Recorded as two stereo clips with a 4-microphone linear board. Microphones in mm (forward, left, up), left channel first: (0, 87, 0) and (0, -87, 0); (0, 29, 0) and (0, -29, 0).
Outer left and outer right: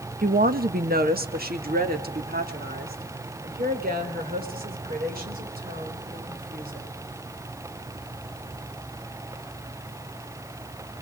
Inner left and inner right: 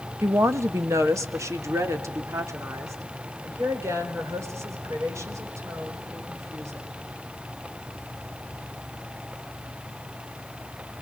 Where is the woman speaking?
55° right (ahead or behind), 1.0 m; by 6.9 s 60° right (ahead or behind), 6.5 m.